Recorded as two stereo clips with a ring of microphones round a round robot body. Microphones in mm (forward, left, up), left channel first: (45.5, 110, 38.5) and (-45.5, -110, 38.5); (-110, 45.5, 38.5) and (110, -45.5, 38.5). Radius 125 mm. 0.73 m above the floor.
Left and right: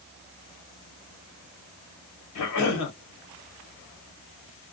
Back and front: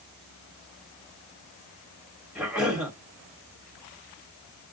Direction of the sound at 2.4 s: 65° left.